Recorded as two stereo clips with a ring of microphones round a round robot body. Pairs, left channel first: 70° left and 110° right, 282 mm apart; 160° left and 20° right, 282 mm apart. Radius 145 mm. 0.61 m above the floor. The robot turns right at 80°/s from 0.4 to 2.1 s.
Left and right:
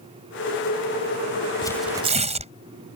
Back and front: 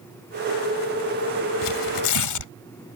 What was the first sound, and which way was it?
Tearing paper, 140° left.